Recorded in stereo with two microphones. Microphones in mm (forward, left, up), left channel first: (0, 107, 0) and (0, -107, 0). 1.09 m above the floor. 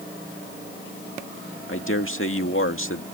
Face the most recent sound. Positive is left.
turn(degrees=70)  # may be behind; listen again after turning